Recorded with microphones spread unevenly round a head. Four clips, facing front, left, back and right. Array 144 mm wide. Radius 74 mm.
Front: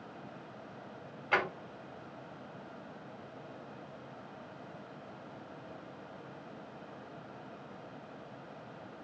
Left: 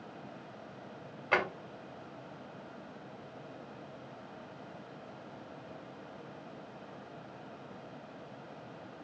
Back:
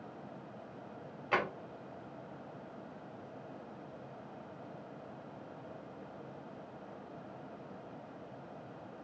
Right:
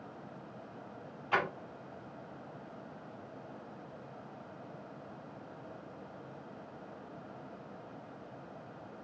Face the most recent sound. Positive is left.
turn(degrees=60)